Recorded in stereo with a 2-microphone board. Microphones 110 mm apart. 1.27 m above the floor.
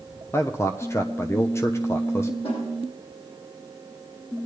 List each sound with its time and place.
0.3 s a man speaking: 25° left (ahead or behind), 0.7 m
2.4 s a snare drum: 60° left (ahead or behind), 9 m